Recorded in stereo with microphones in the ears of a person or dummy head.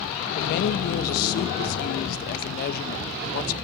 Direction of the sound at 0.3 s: 50° left (ahead or behind).